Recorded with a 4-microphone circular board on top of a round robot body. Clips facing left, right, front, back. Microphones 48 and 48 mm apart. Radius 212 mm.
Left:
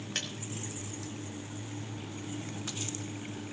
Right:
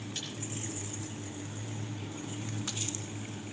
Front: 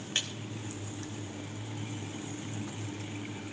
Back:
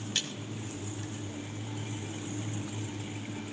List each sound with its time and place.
0.1 s a splash: 60° left, 3 m